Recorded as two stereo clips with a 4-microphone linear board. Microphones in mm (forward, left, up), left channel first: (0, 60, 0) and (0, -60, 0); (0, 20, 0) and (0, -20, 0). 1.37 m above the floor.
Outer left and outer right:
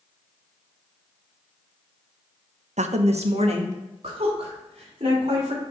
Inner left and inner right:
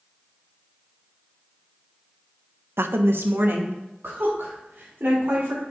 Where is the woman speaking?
70° right (ahead or behind), 0.7 m; by 5.6 s 55° right (ahead or behind), 5 m.